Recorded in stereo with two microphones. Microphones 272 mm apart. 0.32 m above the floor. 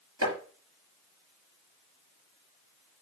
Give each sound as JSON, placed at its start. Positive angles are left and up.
{"t": 0.2, "sound": "chopping", "side_deg": -65, "distance_m": 4.5}